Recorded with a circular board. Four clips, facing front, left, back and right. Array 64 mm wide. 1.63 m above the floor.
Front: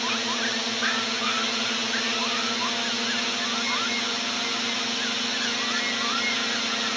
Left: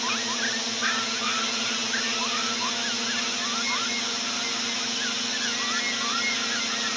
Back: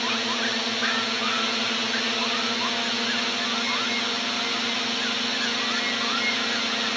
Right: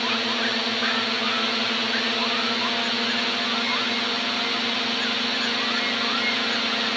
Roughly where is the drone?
Right.